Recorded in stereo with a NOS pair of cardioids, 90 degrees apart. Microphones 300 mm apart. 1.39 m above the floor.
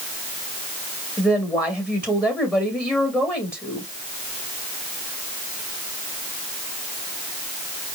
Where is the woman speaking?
5° left, 2 m.